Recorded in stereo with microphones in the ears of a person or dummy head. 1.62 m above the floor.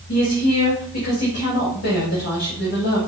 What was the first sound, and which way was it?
A woman speaking, 55° left (ahead or behind).